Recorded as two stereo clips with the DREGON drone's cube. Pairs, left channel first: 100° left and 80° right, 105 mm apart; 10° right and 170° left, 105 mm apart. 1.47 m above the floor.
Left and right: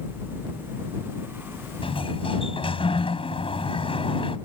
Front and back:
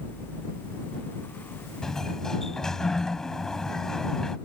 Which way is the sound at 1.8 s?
75° left.